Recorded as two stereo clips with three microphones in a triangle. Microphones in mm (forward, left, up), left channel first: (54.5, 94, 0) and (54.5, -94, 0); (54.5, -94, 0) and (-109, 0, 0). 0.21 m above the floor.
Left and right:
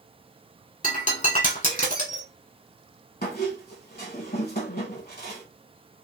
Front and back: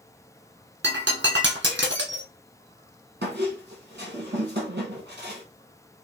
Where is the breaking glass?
135° left, 1.2 m.